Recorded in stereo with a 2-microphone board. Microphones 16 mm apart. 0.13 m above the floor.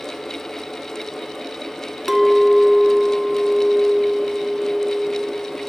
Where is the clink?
25° right (ahead or behind), 0.7 m.